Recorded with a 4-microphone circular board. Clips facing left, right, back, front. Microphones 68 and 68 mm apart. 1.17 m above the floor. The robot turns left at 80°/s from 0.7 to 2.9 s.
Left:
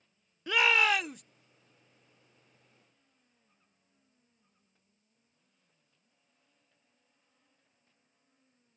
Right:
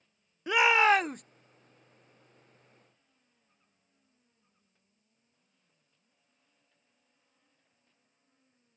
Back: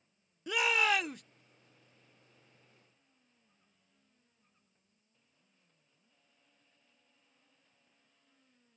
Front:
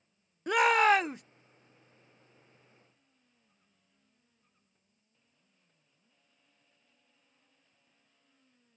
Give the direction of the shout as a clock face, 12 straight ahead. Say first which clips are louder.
Right 4 dB, front 7 dB; 1 o'clock.